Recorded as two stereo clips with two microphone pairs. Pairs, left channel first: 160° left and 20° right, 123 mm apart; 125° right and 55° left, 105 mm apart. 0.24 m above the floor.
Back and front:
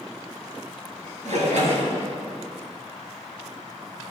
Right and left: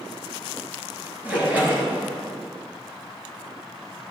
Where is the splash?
20° right, 3 m.